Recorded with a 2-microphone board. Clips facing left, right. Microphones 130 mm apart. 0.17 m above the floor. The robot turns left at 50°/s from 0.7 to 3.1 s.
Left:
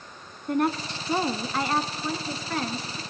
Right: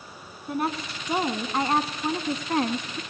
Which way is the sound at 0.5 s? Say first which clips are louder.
Left 4 dB; 5° right.